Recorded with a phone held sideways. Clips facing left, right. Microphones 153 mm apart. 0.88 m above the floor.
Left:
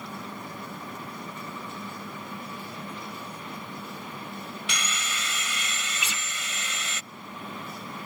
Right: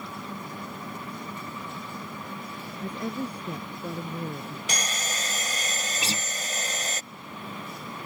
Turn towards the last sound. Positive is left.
turn(degrees=-35)  # may be behind; listen again after turning